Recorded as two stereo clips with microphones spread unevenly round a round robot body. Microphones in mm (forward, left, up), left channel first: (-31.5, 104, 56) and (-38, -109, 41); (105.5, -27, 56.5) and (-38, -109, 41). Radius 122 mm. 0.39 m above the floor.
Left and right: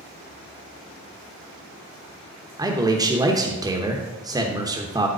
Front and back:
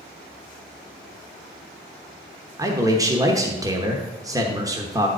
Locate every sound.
2.6 s a man speaking: 130° right, 1.0 m